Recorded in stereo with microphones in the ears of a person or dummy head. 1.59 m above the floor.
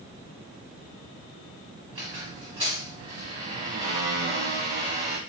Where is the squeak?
35° right (ahead or behind), 1.1 m.